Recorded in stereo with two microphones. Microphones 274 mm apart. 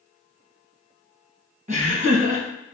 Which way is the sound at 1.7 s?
25° right (ahead or behind).